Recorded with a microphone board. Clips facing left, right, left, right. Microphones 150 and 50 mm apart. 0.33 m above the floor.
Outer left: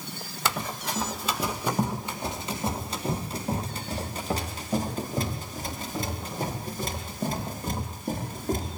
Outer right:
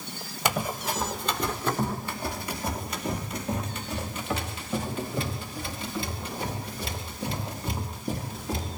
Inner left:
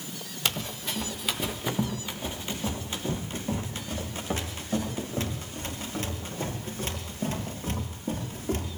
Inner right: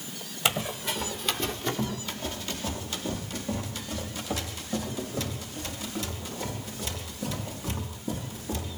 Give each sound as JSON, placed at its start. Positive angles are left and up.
{"t": 0.5, "sound": "running footsteps", "side_deg": -15, "distance_m": 1.8}